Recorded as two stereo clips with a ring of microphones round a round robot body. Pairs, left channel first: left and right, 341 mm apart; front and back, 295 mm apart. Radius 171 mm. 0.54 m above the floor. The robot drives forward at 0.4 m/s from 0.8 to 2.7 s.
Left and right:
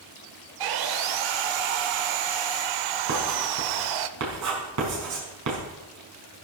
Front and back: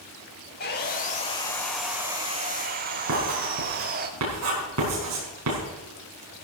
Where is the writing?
130° right, 6 m.